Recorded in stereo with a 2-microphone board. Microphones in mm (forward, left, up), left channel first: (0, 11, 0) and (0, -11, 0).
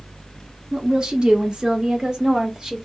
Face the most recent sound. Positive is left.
turn(degrees=-15)  # may be behind; listen again after turning